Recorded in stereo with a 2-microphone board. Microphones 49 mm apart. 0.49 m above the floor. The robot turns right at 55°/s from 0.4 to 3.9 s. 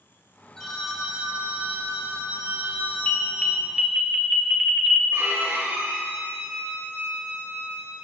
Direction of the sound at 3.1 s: 25° left (ahead or behind).